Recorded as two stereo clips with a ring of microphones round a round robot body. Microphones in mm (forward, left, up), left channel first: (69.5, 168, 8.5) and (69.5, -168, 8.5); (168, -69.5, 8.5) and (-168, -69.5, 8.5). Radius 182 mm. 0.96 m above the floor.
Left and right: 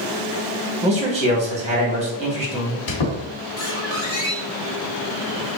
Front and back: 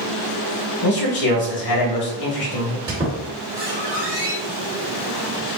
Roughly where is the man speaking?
Ahead.